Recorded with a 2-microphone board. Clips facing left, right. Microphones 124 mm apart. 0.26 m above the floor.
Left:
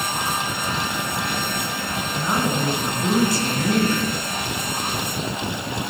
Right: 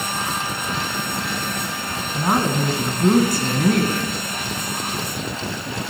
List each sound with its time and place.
2.1 s a woman speaking: 55° right (ahead or behind), 2.5 m